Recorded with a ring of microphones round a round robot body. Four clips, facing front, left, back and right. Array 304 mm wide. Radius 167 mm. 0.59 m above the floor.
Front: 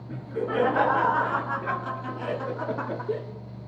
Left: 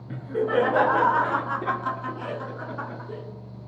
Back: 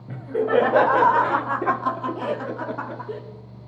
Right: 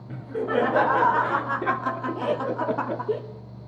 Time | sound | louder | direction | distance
0.1 | laughter | left 2 dB, back 7 dB | 170° left | 4 m